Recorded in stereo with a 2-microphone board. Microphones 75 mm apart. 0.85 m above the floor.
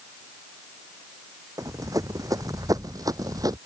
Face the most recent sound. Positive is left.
turn(degrees=-55)  # may be behind; listen again after turning